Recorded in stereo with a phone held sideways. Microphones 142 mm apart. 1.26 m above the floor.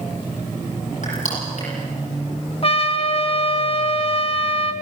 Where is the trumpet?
45° left (ahead or behind), 1.5 m.